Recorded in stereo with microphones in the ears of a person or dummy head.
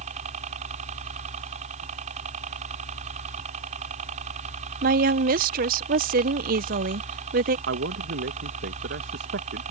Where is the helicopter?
45° right (ahead or behind).